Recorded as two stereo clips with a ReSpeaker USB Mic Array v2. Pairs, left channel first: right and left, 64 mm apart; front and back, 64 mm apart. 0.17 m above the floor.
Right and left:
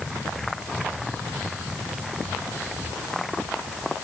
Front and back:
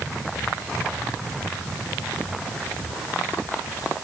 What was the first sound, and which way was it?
Only background noise.